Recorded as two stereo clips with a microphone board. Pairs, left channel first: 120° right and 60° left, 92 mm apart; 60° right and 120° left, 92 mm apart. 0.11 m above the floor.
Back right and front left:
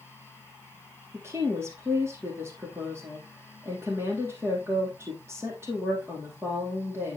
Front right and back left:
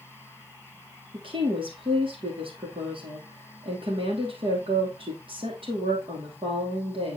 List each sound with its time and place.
1.1 s a woman speaking: 120° left, 3 m